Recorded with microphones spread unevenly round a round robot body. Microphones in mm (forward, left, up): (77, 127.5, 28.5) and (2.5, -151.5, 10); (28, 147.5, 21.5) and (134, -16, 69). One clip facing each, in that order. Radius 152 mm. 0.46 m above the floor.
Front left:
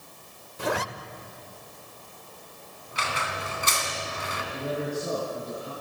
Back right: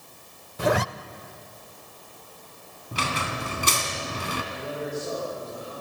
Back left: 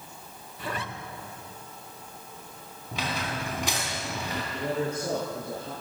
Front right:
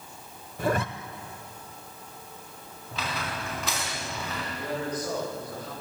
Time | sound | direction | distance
0.6 | a zipper | 115° right | 1.0 m
2.9 | a squeak | 160° right | 2.5 m
4.5 | a man speaking | 60° left | 7 m